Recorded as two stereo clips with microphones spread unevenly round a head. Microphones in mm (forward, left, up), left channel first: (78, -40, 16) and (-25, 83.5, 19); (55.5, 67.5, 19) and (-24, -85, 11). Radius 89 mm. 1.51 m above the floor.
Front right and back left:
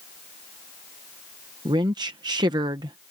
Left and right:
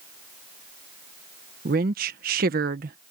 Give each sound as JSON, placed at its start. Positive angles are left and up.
{"t": 1.6, "sound": "a woman speaking", "azimuth_deg": -160}